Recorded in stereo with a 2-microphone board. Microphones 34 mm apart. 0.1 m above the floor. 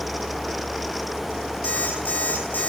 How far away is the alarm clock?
About 3.5 m.